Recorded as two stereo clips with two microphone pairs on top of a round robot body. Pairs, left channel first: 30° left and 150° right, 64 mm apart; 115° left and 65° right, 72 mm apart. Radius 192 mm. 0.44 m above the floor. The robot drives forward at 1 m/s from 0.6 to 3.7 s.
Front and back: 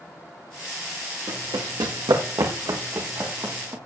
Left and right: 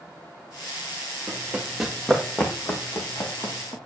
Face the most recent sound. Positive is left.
turn(degrees=155)